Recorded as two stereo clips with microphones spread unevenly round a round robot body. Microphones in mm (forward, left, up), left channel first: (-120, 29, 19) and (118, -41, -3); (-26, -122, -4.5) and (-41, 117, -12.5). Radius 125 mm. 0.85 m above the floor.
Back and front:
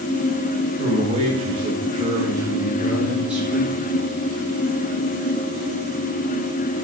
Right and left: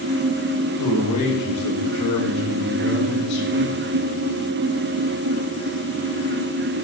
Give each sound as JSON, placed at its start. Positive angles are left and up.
{"t": 0.8, "sound": "a man speaking", "azimuth_deg": -80, "distance_m": 4.5}